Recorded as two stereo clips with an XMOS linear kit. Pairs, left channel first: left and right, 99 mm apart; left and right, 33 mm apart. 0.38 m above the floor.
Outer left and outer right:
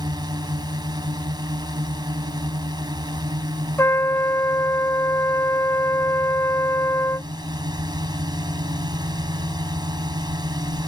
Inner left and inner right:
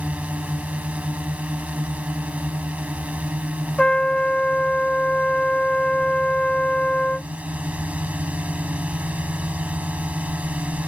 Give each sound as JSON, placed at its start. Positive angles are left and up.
{"t": 0.0, "sound": "a drone", "side_deg": -45}
{"t": 3.8, "sound": "a trumpet", "side_deg": 25}